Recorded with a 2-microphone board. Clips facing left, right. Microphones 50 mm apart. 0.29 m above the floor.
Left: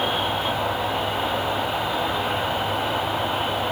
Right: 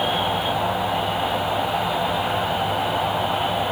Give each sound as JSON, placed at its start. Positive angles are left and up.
{"t": 0.0, "sound": "an insect", "side_deg": -10, "distance_m": 0.9}